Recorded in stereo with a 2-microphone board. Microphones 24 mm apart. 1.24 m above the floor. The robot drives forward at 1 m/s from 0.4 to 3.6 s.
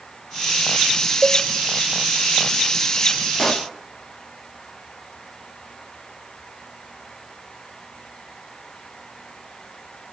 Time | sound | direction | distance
1.2 | a cowbell | 55° right (ahead or behind) | 1.5 m
3.4 | a pop | 10° left (ahead or behind) | 2.0 m